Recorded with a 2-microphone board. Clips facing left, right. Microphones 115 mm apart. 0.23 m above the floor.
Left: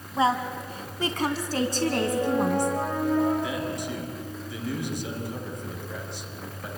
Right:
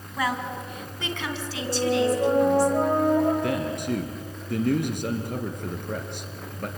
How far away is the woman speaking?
About 2 m.